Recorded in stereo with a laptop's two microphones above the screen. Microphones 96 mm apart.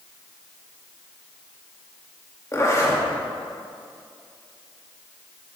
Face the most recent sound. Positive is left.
turn(degrees=35)  # may be behind; listen again after turning